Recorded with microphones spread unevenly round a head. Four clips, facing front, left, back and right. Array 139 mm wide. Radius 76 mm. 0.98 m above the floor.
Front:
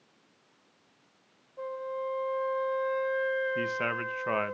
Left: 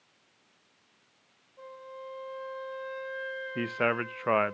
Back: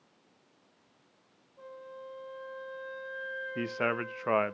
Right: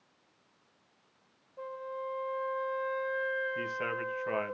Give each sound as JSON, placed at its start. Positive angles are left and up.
{"t": 1.6, "sound": "a flute", "azimuth_deg": -30, "distance_m": 2.0}
{"t": 3.5, "sound": "a man speaking", "azimuth_deg": 105, "distance_m": 0.8}